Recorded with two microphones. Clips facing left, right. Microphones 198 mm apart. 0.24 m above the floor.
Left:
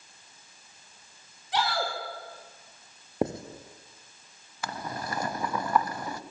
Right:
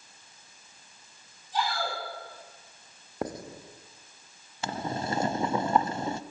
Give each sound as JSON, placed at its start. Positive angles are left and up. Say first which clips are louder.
{"t": 1.5, "sound": "a shout", "louder": "left 2 dB", "side_deg": 75, "distance_m": 7.0}
{"t": 3.2, "sound": "writing", "louder": "left 5 dB", "side_deg": 25, "distance_m": 2.0}
{"t": 4.6, "sound": "boiling", "louder": "right 4 dB", "side_deg": -25, "distance_m": 0.9}